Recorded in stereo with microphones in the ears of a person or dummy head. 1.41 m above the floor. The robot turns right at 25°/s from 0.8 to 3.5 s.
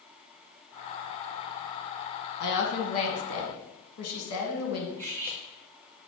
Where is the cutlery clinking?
10° right (ahead or behind), 0.7 m.